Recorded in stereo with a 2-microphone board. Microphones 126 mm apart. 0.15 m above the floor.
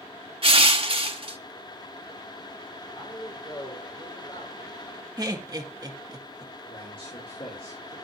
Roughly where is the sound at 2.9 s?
Left.